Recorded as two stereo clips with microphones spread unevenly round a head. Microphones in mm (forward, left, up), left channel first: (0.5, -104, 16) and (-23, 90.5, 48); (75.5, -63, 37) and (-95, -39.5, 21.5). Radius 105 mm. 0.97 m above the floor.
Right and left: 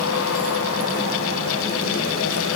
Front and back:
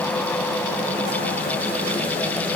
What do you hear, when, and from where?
Only background noise.